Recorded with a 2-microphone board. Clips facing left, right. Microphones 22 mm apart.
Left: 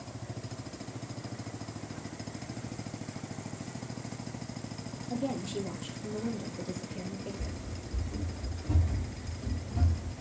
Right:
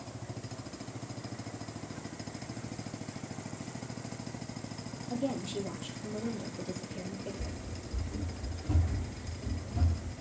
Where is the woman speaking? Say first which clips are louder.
Even; 10° left (ahead or behind), 3 m.